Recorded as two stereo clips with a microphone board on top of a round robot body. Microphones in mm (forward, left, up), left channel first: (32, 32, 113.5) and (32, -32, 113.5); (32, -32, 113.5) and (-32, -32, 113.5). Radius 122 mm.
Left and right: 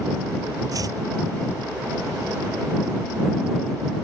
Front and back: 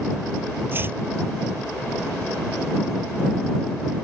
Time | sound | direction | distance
0.7 | chopping | 125° right | ?